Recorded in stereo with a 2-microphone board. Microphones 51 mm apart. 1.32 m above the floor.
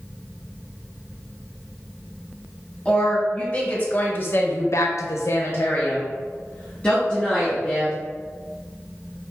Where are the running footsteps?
I don't hear running footsteps.